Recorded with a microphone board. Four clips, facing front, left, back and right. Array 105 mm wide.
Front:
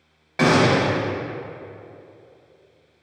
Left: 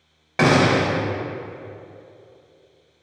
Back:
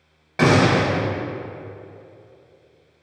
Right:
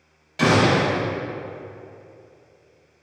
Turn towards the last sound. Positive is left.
turn(degrees=95)